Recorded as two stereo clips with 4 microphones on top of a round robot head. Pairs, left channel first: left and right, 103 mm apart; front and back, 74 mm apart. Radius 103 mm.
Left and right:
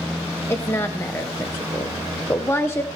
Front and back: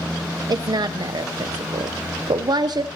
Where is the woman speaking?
160° left, 0.6 m.